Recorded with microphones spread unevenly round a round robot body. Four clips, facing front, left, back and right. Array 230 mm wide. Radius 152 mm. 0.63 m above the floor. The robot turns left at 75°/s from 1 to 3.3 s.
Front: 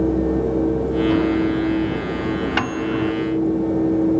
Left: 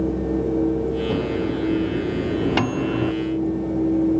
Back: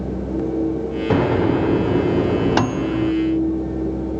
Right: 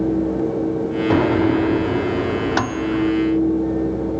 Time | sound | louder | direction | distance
1.1 | a microwave | right 7 dB, back 5 dB | 95° right | ?